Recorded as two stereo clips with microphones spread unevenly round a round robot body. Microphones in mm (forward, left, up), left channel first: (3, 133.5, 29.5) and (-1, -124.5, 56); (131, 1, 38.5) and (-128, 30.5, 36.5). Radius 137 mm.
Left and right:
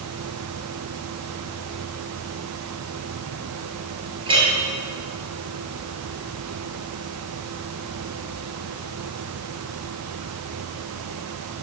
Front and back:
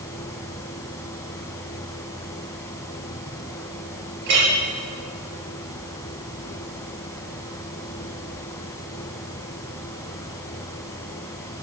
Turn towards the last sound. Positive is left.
turn(degrees=-165)